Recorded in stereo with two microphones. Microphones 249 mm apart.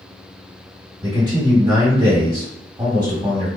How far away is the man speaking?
About 1.8 m.